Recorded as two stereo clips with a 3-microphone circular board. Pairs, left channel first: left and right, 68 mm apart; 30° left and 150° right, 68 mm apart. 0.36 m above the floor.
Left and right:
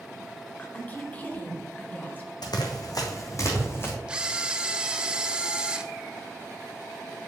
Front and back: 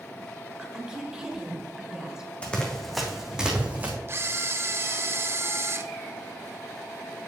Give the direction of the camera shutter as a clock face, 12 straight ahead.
5 o'clock.